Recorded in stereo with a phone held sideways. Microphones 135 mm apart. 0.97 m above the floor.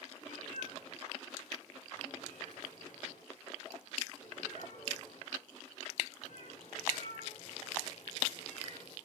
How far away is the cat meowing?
About 7.5 m.